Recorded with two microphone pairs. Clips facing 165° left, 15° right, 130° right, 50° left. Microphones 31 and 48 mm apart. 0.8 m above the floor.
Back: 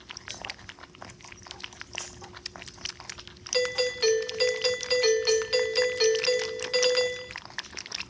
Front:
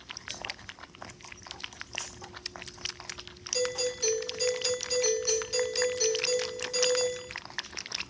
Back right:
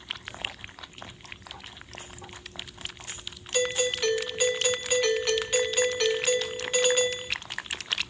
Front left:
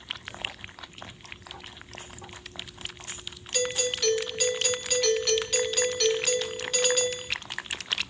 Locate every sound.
3.5 s a doorbell: 170° left, 1.2 m